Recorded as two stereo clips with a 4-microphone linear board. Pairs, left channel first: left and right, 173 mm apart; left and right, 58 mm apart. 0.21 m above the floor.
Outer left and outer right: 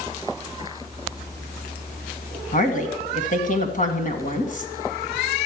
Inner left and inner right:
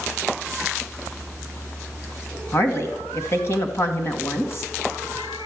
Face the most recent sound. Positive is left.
turn(degrees=50)  # may be behind; listen again after turning